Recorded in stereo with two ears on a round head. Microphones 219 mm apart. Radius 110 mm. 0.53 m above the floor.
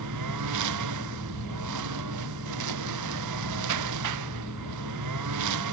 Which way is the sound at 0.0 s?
90° right.